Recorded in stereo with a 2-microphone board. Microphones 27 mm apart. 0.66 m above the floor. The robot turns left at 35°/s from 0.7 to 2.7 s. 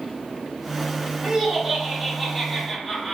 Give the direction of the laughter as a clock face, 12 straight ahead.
4 o'clock.